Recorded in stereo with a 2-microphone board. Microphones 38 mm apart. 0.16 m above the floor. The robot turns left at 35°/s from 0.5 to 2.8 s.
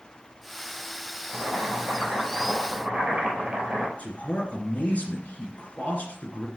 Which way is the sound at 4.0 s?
45° left (ahead or behind).